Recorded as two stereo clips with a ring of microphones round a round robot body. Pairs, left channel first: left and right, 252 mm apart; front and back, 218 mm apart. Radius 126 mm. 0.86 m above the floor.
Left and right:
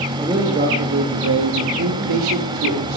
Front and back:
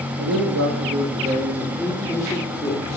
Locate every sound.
0.2 s a man speaking: 165° right, 0.9 m; by 3.0 s 65° right, 1.8 m